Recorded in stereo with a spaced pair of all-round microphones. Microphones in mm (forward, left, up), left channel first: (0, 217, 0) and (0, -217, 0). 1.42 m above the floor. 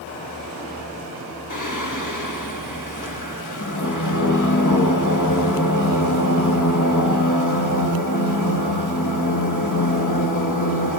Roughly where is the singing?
Left.